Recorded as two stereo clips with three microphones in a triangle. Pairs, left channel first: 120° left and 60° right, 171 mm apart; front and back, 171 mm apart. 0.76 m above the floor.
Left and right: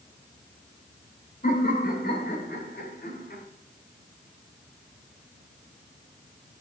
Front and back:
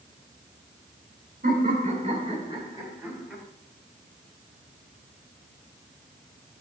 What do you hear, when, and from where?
1.4 s laughter: 155° left, 2.5 m; by 3.4 s 95° left, 3.5 m